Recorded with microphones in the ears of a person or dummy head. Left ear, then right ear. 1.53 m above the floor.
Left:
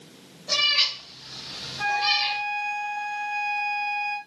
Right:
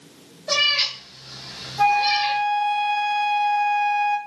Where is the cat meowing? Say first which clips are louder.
Right 2 dB; 25° right (ahead or behind), 1.1 m; by 2.4 s 40° left (ahead or behind), 1.6 m.